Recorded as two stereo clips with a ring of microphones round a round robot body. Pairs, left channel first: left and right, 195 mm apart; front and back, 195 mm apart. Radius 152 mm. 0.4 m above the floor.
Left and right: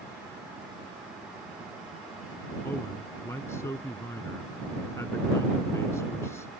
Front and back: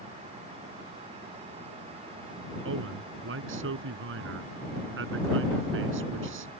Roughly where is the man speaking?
Behind.